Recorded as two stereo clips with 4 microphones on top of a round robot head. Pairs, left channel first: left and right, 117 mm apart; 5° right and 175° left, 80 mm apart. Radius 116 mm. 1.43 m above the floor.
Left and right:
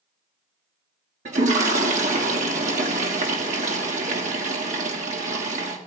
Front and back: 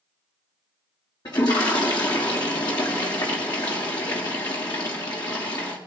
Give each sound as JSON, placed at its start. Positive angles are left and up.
{"t": 1.2, "sound": "a toilet flushing", "azimuth_deg": -60, "distance_m": 1.7}